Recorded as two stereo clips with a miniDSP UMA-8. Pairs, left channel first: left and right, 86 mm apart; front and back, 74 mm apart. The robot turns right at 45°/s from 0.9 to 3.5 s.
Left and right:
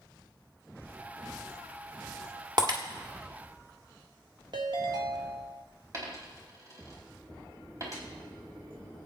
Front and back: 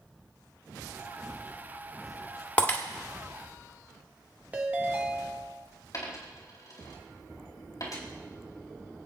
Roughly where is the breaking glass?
Right.